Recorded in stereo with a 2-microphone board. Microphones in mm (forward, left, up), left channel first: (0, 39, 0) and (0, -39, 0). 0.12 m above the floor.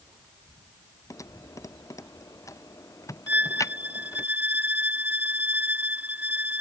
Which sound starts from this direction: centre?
A violin, at 3.3 s.